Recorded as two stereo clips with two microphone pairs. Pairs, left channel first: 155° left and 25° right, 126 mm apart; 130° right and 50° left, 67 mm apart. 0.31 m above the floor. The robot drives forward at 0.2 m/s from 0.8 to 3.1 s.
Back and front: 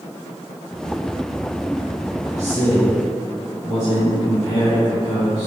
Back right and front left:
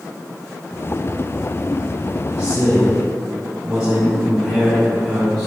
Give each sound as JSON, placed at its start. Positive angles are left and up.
{"t": 2.3, "sound": "a man speaking", "azimuth_deg": 110, "distance_m": 1.9}